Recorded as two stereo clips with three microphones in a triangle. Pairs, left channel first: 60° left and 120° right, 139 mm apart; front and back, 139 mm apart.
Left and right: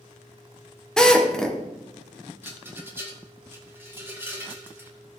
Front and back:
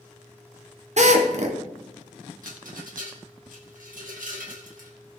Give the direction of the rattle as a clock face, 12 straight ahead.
6 o'clock.